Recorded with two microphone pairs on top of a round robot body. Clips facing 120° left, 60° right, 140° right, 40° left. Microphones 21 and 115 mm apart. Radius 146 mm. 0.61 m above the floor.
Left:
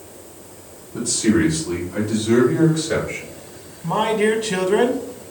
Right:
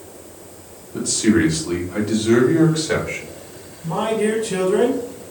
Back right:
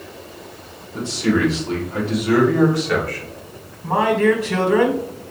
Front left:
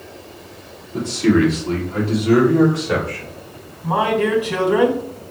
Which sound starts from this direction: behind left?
A man speaking, at 3.8 s.